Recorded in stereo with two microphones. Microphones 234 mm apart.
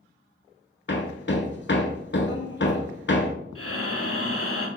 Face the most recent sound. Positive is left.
turn(degrees=70)  # may be behind; listen again after turning